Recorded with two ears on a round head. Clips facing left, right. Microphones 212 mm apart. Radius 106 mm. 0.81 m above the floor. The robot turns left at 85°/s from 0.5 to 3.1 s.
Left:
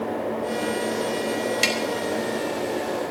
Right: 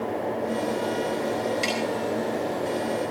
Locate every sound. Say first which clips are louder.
1.6 s tapping: left 1 dB; 75° left (ahead or behind), 4 m; by 1.8 s 80° left, 4 m